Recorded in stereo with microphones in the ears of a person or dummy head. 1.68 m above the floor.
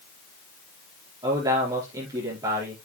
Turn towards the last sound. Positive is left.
turn(degrees=-20)  # may be behind; listen again after turning